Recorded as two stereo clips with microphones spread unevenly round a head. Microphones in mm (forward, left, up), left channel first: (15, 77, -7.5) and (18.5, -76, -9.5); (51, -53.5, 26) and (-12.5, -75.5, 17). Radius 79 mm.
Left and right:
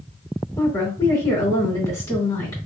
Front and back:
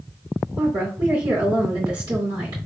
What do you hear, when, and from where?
0.6 s a woman speaking: 160° left, 2.5 m